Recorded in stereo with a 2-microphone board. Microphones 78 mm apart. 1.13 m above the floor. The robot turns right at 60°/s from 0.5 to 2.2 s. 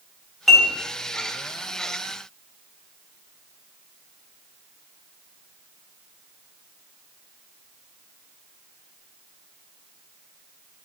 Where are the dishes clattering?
Centre (ahead or behind), 5.5 m; by 0.7 s 15° right (ahead or behind), 5.5 m.